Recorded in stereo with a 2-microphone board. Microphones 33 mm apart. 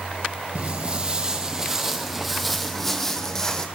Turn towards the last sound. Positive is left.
turn(degrees=15)  # may be behind; listen again after turning